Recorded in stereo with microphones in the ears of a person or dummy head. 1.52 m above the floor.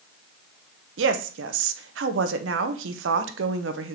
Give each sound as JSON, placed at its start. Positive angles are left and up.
{"t": 1.0, "sound": "a woman speaking", "side_deg": -75, "distance_m": 0.9}